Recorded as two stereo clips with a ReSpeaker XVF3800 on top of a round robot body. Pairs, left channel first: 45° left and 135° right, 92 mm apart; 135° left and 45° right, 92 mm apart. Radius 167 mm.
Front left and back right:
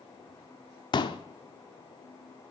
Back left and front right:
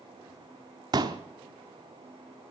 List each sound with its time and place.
0.9 s a pop: 5° left, 0.8 m